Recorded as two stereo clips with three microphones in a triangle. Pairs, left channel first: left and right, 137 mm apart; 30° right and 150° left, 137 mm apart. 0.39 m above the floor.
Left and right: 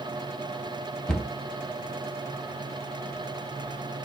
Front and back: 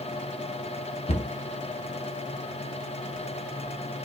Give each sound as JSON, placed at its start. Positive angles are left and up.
{"t": 1.1, "sound": "a cupboard door", "azimuth_deg": 5, "distance_m": 0.8}